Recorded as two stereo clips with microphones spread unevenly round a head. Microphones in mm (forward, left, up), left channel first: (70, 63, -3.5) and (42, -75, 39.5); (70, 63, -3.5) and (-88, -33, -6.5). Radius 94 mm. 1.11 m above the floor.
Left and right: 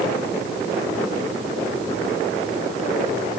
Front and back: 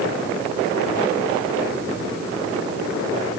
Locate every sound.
Only background noise.